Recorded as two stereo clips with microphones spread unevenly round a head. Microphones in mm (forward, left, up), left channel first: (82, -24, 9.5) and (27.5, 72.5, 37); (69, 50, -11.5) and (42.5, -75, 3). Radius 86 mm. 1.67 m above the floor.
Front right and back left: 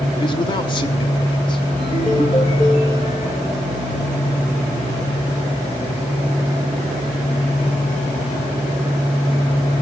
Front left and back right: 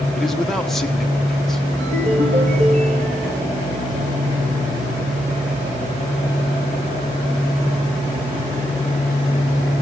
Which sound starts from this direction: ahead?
A man speaking, at 0.2 s.